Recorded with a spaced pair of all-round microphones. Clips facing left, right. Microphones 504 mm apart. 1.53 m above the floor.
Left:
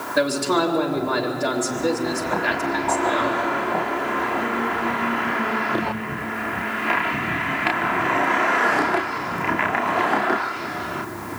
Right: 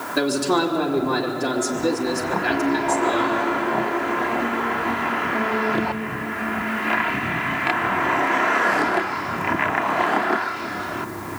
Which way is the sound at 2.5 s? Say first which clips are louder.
Right 4 dB; 70° right (ahead or behind).